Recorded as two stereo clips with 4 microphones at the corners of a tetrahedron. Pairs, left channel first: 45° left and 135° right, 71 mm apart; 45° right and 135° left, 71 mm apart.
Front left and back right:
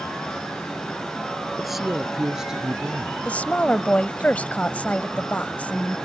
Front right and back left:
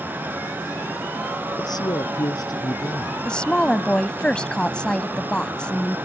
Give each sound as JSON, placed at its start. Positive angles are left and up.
{"t": 1.6, "sound": "a man speaking", "azimuth_deg": -45}
{"t": 3.2, "sound": "a woman speaking", "azimuth_deg": 10}